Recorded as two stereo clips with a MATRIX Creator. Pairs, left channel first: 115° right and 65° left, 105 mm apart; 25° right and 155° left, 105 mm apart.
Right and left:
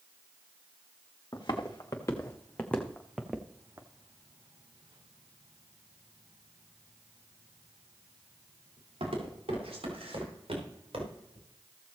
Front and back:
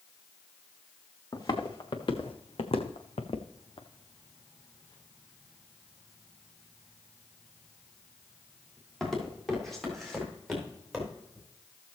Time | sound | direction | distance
1.3 | footsteps | 65° right | 1.9 m